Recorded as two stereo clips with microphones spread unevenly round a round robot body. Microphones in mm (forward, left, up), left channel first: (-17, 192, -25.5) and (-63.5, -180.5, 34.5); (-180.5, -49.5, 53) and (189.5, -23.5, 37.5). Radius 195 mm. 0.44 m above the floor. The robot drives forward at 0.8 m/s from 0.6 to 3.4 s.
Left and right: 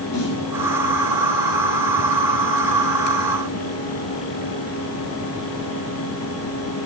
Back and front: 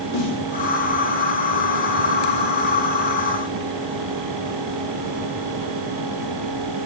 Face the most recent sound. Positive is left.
turn(degrees=135)